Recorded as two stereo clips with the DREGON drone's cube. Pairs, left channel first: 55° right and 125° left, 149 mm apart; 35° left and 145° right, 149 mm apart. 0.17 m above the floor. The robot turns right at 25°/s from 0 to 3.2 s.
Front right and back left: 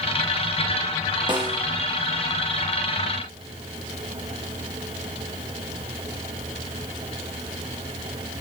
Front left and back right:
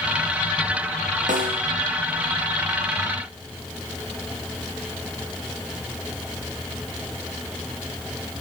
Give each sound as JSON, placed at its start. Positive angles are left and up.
{"t": 1.3, "sound": "a snare drum", "azimuth_deg": -175, "distance_m": 4.5}